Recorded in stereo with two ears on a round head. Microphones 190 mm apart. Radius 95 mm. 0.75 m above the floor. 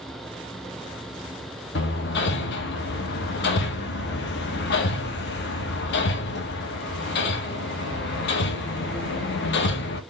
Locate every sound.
1.8 s hammering: 55° left (ahead or behind), 0.9 m